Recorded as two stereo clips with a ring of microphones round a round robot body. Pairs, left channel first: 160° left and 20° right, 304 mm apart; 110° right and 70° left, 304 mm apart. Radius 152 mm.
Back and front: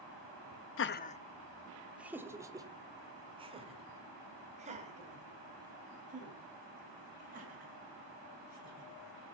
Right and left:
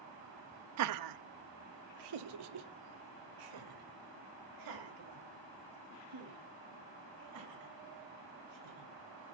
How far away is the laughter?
About 0.9 m.